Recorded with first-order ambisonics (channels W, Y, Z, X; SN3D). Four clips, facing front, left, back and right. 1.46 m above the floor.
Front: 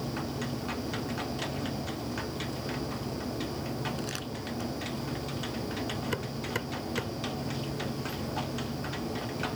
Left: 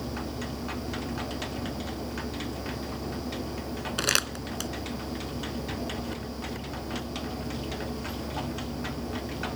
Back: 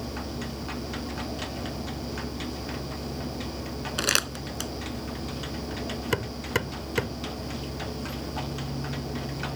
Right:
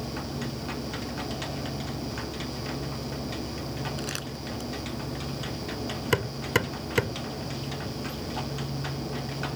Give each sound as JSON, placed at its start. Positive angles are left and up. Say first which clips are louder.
{"t": 4.0, "sound": "crumpling", "louder": "left 7 dB, back 10 dB", "azimuth_deg": 145}
{"t": 6.1, "sound": "hammering", "louder": "right 9 dB, back 5 dB", "azimuth_deg": -115}